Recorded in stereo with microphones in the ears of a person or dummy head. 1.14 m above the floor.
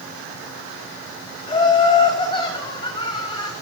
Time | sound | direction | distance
1.5 | laughter | 20° left (ahead or behind) | 8 m